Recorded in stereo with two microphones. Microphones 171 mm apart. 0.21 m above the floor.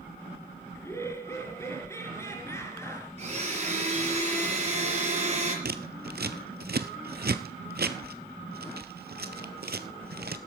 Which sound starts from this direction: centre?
Laughter, at 0.8 s.